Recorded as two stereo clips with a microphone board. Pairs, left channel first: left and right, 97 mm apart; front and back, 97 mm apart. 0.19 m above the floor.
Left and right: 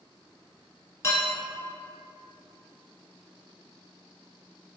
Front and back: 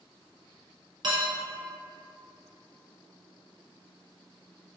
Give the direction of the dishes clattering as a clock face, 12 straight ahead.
7 o'clock.